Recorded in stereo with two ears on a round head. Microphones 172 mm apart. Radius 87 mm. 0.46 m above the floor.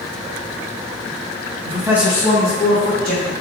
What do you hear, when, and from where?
1.6 s a man speaking: 30° right (ahead or behind), 0.8 m; by 3.3 s 45° left (ahead or behind), 2 m